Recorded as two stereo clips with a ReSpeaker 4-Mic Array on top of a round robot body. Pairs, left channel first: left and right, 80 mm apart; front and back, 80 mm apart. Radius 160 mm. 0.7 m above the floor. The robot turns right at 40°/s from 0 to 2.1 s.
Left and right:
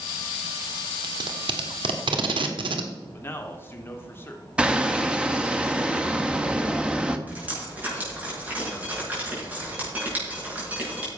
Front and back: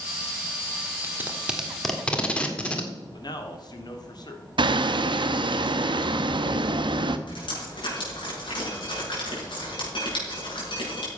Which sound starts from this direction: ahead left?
A man speaking, at 3.1 s.